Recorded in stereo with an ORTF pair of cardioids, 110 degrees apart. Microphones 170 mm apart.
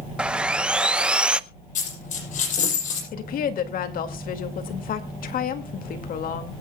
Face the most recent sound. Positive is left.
turn(degrees=60)